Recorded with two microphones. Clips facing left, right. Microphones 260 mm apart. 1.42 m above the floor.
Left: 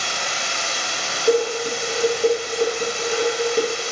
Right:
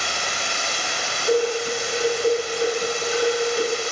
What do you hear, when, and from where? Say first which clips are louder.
0.0 s running water: even; 75° left (ahead or behind), 1.0 m
1.3 s dishes clattering: left 2 dB; 55° left (ahead or behind), 1.0 m